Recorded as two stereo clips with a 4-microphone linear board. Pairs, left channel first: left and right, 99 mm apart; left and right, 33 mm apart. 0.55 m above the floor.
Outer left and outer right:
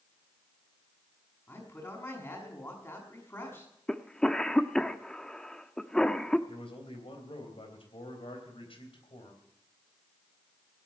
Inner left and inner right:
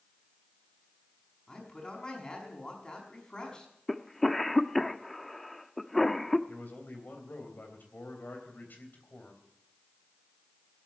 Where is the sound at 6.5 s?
70° left (ahead or behind), 3.5 m.